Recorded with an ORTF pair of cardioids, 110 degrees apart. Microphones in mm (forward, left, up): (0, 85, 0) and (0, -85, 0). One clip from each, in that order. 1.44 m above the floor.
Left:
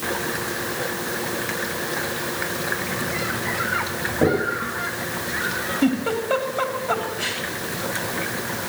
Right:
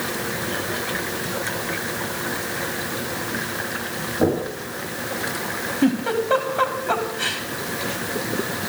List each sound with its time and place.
4.2 s knocking: 10° left, 9.5 m
5.8 s a giggle: 5° right, 3 m